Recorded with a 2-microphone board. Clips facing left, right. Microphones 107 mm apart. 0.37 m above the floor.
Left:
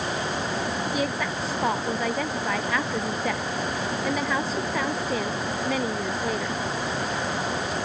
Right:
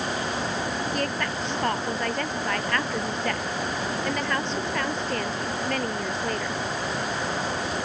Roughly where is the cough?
I don't hear a cough.